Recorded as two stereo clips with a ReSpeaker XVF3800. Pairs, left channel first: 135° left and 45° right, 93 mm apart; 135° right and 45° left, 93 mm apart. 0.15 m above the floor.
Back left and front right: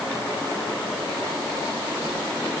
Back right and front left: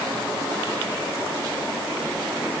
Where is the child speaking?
I don't hear a child speaking.